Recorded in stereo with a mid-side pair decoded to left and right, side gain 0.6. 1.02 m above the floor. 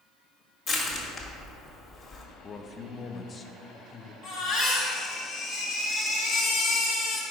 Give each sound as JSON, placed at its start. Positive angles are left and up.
{"t": 0.7, "sound": "crushing", "azimuth_deg": 45, "distance_m": 1.7}
{"t": 2.4, "sound": "a man speaking", "azimuth_deg": 35, "distance_m": 0.6}
{"t": 4.2, "sound": "a baby crying", "azimuth_deg": 65, "distance_m": 1.9}